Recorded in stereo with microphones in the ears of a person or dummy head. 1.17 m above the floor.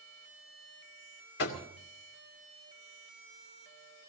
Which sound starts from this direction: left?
Knocking, at 1.4 s.